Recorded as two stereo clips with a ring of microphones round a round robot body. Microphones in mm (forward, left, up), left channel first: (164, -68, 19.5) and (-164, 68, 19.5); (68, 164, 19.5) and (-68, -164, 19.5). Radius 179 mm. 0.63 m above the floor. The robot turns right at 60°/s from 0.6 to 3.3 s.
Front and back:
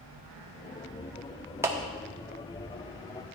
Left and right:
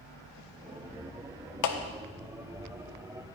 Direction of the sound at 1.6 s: 75° left.